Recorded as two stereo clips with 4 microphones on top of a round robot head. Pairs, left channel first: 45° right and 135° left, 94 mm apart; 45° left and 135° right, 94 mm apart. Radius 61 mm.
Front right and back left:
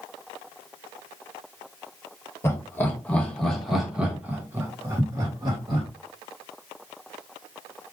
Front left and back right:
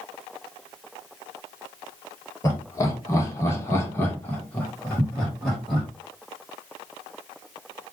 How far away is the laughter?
About 1.3 m.